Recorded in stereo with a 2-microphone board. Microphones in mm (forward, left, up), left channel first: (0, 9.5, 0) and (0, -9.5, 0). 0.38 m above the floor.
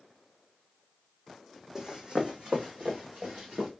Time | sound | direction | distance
1.8 | running footsteps | 35° right (ahead or behind) | 1.2 m